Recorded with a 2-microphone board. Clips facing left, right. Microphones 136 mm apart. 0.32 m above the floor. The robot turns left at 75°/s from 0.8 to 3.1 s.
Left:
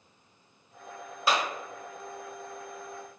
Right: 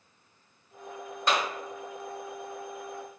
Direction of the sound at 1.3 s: 10° left (ahead or behind).